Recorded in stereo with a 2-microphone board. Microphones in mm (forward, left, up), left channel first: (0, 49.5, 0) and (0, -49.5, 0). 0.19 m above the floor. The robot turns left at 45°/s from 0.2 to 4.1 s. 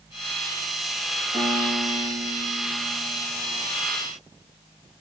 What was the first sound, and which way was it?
A piano, 60° right.